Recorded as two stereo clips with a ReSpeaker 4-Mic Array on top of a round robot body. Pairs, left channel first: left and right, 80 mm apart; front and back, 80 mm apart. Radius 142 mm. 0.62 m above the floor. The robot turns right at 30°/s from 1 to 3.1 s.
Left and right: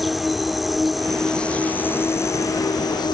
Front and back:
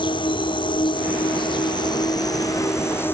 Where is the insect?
Straight ahead; by 3.1 s 65° left.